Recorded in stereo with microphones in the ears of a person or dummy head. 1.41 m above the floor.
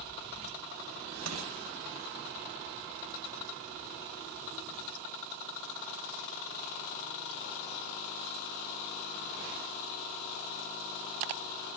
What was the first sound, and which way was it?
Crushing, 85° right.